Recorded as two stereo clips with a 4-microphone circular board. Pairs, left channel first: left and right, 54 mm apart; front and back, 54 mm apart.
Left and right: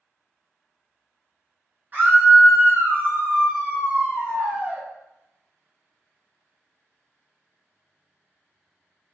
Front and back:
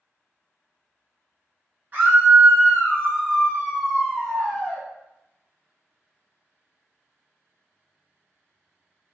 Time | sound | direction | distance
1.9 | a scream | 135° right | 1.8 m